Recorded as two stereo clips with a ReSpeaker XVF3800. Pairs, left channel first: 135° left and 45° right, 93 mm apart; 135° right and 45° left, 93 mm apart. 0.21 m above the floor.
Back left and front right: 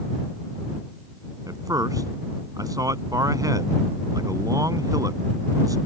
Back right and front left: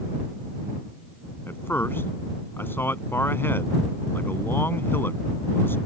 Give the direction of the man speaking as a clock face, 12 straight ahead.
3 o'clock.